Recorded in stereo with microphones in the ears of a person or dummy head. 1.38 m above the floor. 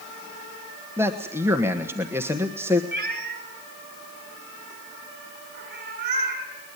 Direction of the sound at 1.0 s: 10° right (ahead or behind).